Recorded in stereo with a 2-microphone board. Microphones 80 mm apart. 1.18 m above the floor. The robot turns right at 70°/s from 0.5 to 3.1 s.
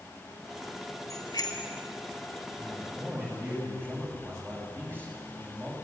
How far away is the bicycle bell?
About 3.5 m.